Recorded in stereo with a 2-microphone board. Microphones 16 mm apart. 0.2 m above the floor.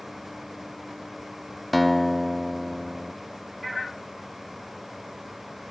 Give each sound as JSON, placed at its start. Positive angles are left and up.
{"t": 1.7, "sound": "a guitar", "side_deg": 0, "distance_m": 1.0}